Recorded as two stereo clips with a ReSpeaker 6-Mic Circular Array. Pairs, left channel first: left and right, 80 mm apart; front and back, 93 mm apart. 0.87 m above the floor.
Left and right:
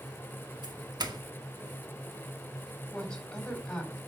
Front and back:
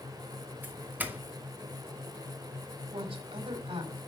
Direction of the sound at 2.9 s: 170° left.